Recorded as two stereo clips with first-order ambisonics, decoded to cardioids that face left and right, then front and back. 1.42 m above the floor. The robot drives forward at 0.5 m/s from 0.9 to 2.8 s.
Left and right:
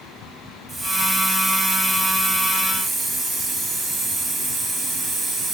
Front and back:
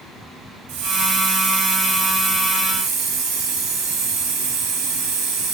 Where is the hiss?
175° right, 2.5 m; by 5.5 s straight behind, 3.5 m.